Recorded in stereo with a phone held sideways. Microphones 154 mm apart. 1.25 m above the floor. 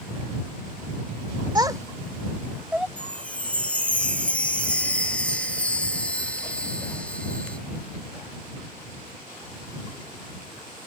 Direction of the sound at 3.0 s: 10° left (ahead or behind).